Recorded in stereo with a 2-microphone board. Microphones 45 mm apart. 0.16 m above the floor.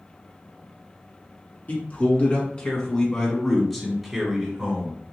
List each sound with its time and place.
1.7 s a man speaking: 35° left (ahead or behind), 1.9 m; by 5.0 s 20° right (ahead or behind), 1.5 m